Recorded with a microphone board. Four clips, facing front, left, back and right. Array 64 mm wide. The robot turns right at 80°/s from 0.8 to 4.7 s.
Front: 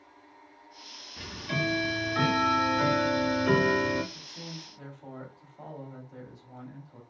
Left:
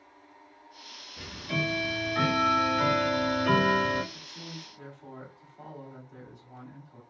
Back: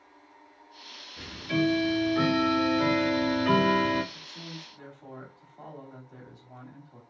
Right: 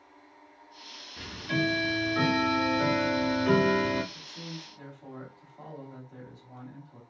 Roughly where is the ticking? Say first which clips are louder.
Right 2 dB, back 4 dB; ahead right.